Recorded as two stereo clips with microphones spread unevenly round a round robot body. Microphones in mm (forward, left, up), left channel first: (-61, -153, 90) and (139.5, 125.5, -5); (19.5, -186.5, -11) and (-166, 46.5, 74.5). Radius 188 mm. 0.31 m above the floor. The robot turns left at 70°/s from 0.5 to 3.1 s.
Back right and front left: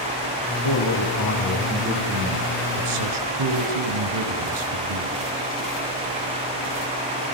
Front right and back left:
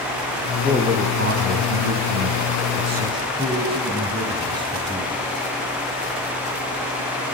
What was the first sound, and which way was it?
A man speaking, 140° right.